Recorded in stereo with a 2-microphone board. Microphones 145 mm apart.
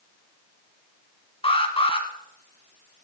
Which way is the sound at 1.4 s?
40° left (ahead or behind).